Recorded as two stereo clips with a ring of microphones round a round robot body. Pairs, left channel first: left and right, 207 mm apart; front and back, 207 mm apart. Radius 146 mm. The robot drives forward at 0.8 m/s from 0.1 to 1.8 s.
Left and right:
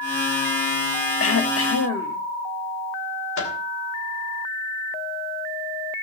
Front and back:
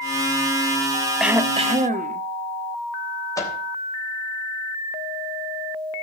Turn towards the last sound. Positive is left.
turn(degrees=75)